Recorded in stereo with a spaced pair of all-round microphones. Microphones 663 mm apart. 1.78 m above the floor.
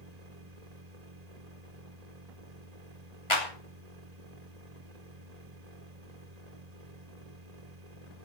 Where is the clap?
45° left (ahead or behind), 2.5 m.